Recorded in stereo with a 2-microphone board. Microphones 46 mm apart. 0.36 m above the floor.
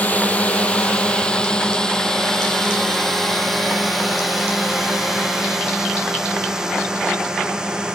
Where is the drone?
35° left (ahead or behind); by 8.0 s 15° right (ahead or behind).